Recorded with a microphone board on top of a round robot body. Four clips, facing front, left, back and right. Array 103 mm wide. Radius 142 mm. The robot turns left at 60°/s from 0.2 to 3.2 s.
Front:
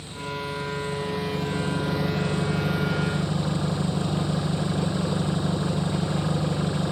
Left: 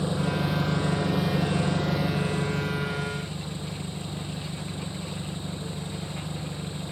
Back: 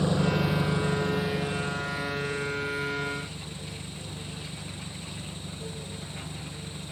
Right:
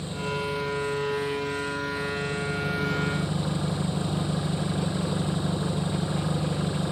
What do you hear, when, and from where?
0.0 s an engine running: 155° left; by 6.9 s 25° right